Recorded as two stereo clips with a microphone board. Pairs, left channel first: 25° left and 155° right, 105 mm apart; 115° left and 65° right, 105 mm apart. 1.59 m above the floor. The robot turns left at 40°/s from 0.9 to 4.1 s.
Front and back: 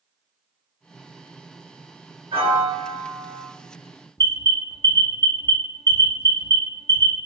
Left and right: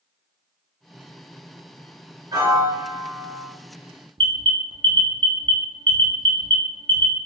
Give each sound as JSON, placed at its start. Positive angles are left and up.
{"t": 2.3, "sound": "a piano", "azimuth_deg": -120, "distance_m": 1.0}
{"t": 4.2, "sound": "an alarm", "azimuth_deg": -40, "distance_m": 0.5}